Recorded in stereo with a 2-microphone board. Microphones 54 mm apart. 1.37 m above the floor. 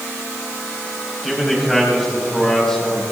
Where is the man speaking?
5° right (ahead or behind), 4 m; by 3.0 s 10° left (ahead or behind), 4.5 m.